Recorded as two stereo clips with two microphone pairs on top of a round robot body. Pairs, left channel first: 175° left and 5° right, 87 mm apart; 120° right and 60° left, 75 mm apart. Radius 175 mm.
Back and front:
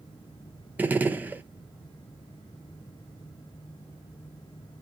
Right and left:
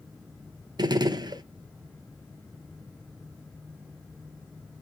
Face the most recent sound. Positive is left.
turn(degrees=65)